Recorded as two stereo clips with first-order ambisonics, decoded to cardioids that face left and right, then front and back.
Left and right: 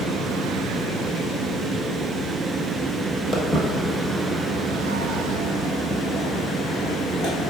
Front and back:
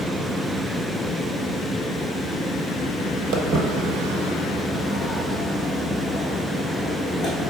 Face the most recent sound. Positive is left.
turn(degrees=60)